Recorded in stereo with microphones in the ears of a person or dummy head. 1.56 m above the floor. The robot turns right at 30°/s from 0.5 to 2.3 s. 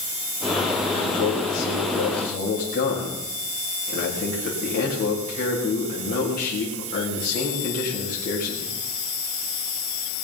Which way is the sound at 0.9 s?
85° left.